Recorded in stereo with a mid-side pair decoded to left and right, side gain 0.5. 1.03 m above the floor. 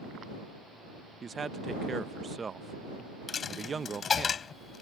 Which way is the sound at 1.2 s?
30° right.